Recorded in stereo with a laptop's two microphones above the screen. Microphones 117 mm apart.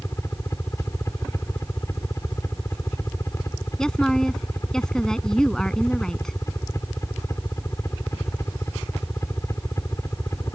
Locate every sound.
0.0 s a helicopter: 25° left (ahead or behind)
3.8 s a woman speaking: 5° left (ahead or behind)